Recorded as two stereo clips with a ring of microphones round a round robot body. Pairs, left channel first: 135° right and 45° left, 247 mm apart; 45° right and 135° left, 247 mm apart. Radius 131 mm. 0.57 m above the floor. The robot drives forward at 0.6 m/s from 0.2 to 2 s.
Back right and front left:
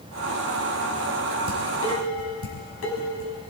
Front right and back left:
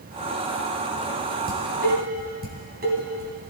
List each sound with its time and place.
1.5 s dishes clattering: 170° right, 3.5 m